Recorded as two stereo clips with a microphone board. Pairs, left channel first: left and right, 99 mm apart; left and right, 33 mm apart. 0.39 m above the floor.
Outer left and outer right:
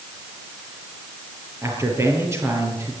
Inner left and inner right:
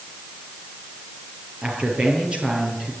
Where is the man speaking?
30° right (ahead or behind), 8 m; by 2.9 s 25° right (ahead or behind), 7.5 m.